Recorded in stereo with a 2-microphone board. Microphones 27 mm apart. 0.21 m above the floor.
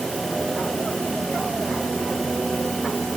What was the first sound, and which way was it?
Only background noise.